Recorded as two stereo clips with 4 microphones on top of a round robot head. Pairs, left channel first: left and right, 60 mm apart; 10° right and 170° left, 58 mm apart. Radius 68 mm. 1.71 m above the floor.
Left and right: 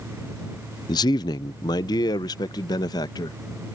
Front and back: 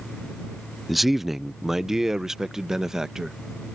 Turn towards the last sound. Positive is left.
turn(degrees=90)